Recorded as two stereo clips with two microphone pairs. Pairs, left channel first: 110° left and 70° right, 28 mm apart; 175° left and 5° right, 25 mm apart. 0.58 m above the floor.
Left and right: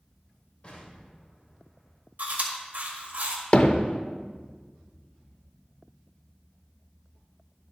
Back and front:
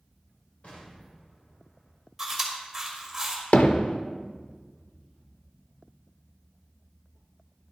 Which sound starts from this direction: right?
Chewing, at 2.2 s.